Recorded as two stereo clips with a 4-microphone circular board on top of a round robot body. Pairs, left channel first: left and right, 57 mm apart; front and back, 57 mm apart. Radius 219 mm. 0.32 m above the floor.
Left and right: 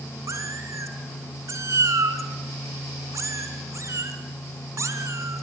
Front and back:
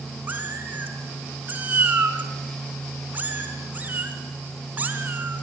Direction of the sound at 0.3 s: 120° right.